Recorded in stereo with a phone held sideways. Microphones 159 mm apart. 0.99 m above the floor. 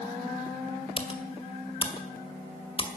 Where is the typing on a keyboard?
35° left (ahead or behind), 1.9 m.